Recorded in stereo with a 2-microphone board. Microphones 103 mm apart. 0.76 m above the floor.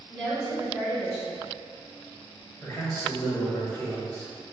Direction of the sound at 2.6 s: 25° left (ahead or behind).